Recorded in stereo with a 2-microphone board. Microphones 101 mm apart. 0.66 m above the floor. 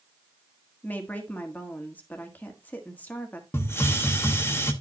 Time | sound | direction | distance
0.8 | a woman speaking | 20° left (ahead or behind) | 1.4 m
3.5 | a hiss | 25° left (ahead or behind) | 1.0 m